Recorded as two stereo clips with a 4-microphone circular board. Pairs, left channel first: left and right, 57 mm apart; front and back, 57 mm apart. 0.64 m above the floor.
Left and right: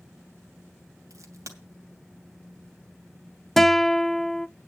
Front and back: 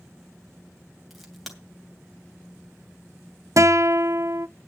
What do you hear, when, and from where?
1.1 s a crack: 90° right, 2.5 m
3.6 s a guitar: 175° left, 0.5 m